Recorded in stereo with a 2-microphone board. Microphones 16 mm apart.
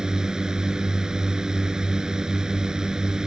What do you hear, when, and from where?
0.0 s a drone: 50° right (ahead or behind)